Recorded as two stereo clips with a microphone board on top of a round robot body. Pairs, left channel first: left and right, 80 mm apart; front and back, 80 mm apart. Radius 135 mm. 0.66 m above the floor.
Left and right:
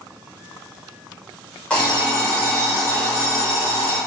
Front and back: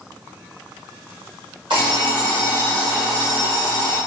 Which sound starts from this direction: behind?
An alarm clock, at 1.7 s.